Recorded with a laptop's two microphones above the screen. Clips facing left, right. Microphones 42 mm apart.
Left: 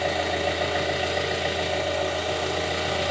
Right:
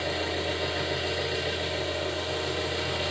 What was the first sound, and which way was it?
An engine running, 65° left (ahead or behind).